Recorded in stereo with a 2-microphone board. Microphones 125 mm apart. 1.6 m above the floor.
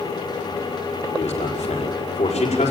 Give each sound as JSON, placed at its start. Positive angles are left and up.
{"t": 1.2, "sound": "a man speaking", "side_deg": 65, "distance_m": 5.5}